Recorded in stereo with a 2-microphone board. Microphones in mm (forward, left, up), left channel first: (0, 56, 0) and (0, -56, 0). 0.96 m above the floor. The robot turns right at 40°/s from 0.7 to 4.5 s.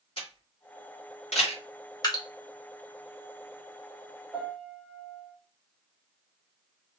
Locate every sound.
0.2 s a camera shutter: 55° left (ahead or behind), 1.9 m; by 1.6 s 70° left (ahead or behind), 1.9 m
2.0 s dripping: 35° left (ahead or behind), 1.3 m; by 2.2 s 30° left (ahead or behind), 1.3 m
4.3 s a piano: 10° right (ahead or behind), 1.8 m; by 5.3 s 15° right (ahead or behind), 1.8 m